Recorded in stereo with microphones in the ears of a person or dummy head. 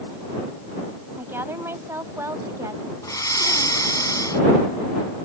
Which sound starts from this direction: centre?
A woman speaking, at 1.2 s.